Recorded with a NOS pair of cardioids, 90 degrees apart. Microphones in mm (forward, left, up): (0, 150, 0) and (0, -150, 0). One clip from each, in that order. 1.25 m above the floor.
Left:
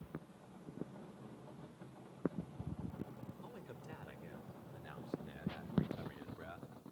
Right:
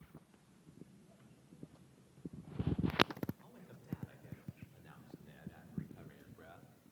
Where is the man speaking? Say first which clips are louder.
Left 7 dB; 55° left, 5 m; by 6.7 s 40° left, 3 m.